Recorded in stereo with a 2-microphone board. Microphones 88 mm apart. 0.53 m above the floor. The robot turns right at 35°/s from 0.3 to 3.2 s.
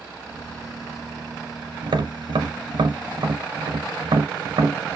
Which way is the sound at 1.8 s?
60° right (ahead or behind).